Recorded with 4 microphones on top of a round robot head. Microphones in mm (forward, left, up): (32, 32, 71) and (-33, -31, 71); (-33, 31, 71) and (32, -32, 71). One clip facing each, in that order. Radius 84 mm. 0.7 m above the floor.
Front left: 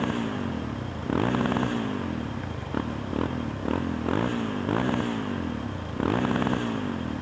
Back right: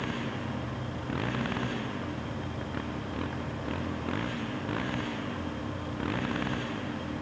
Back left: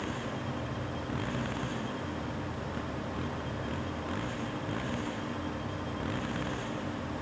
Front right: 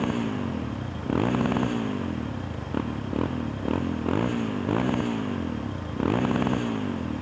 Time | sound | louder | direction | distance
0.0 | a motorcycle | front left 6 dB, front right 9 dB | 10° right | ?